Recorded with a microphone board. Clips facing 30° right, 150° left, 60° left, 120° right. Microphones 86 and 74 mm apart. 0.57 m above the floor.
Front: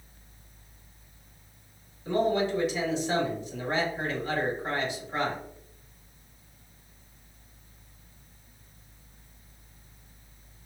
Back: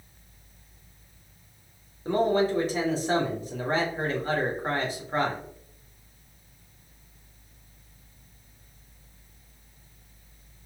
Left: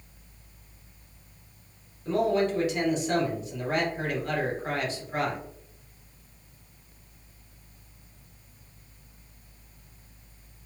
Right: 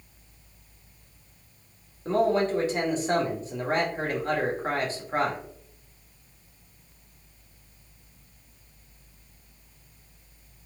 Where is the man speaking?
165° right, 1.8 m.